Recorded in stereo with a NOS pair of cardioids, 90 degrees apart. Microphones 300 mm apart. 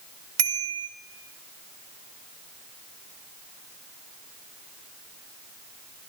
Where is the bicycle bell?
60° right, 4.5 m.